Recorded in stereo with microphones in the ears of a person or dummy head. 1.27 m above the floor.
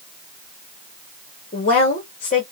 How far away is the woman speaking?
About 1.0 m.